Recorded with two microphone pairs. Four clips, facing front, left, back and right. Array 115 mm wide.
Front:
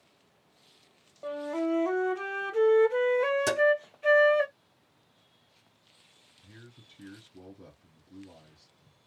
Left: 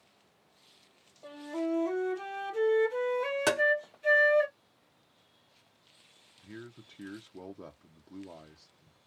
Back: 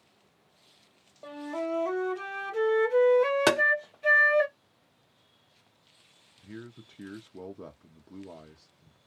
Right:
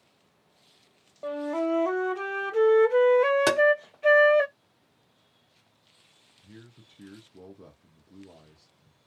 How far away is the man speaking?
About 0.6 m.